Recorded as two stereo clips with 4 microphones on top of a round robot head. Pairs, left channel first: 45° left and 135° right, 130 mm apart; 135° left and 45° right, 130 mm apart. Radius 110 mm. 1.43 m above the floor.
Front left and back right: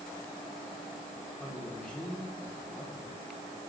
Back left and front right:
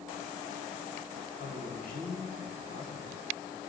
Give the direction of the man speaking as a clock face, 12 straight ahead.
8 o'clock.